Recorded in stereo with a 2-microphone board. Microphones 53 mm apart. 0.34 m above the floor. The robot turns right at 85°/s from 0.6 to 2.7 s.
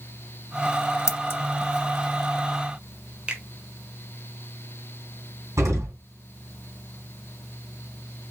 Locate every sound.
1.1 s scissors: 65° left (ahead or behind), 0.5 m; by 1.4 s 45° left (ahead or behind), 0.5 m
3.3 s a finger snap: 20° right (ahead or behind), 1.1 m
5.6 s an explosion: 70° right (ahead or behind), 3 m